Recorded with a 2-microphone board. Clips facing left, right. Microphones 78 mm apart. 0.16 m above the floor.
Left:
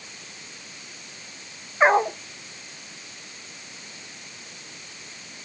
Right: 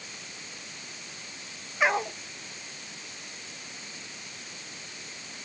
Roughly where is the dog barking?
Left.